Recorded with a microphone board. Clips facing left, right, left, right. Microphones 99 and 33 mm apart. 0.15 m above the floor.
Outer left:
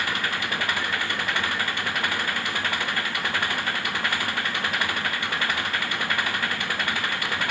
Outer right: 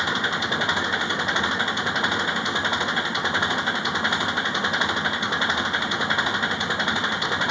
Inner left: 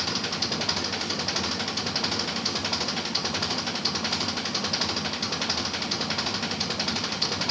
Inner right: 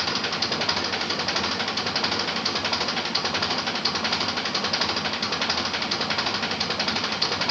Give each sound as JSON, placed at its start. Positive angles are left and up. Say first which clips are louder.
{"t": 0.0, "sound": "an engine running", "louder": "outer right 3 dB, inner right 3 dB", "side_deg": -20}